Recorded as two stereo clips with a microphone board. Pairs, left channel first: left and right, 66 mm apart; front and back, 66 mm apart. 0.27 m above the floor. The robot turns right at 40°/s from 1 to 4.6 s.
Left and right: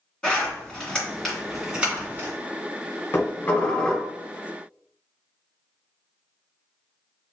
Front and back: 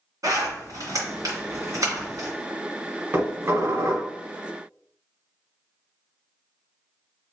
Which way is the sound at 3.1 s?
135° left.